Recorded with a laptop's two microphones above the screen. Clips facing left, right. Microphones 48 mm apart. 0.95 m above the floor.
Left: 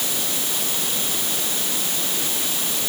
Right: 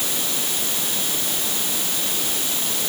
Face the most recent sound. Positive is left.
No sound to turn to.